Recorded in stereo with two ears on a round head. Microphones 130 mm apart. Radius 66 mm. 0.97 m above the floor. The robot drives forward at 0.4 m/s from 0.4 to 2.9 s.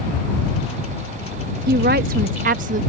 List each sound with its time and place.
1.7 s a woman speaking: 75° right (ahead or behind); by 2.8 s 60° right (ahead or behind)